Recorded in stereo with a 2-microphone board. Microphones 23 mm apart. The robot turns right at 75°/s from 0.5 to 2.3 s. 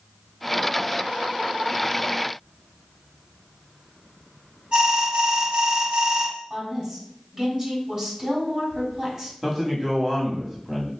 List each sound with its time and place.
4.7 s an alarm: 40° right (ahead or behind), 1.6 m
6.5 s a woman speaking: 30° right (ahead or behind), 1.5 m
9.4 s a man speaking: 15° right (ahead or behind), 1.0 m